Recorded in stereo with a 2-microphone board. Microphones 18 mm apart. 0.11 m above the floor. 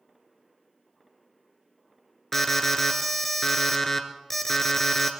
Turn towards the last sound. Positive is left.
turn(degrees=20)  # may be behind; listen again after turning